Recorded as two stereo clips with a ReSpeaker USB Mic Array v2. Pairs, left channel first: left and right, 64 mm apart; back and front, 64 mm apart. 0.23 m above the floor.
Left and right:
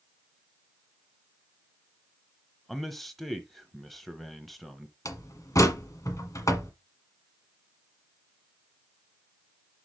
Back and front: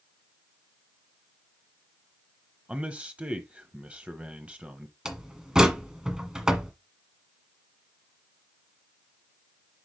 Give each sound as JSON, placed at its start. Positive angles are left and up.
{"t": 2.7, "sound": "a man speaking", "azimuth_deg": 5, "distance_m": 0.9}
{"t": 5.0, "sound": "a door slam", "azimuth_deg": 80, "distance_m": 1.4}